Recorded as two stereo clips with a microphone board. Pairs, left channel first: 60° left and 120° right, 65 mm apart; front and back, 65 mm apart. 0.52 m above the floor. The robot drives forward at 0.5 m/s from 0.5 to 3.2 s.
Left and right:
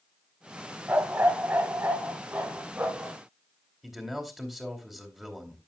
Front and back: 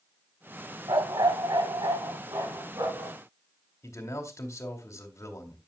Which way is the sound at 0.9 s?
Straight behind.